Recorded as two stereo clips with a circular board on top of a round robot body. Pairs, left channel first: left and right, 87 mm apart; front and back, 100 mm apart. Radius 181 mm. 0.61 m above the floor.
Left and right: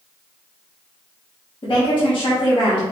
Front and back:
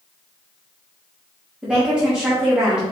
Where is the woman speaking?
100° left, 1.5 m.